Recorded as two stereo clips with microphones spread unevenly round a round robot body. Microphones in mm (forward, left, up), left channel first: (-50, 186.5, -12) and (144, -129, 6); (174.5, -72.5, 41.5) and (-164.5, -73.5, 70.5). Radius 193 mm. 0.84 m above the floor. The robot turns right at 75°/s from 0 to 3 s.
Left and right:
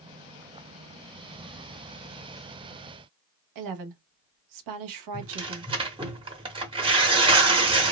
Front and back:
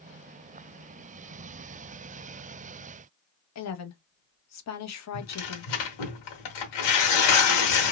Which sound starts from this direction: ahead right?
A woman speaking, at 3.5 s.